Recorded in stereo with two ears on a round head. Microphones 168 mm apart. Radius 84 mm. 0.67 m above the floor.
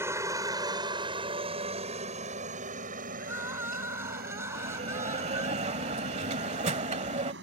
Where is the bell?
35° right (ahead or behind).